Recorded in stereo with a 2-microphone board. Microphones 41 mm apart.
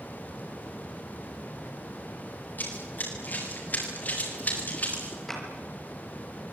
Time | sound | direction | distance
2.6 | running footsteps | 50° left (ahead or behind) | 10 m
5.3 | a clap | 10° left (ahead or behind) | 6.5 m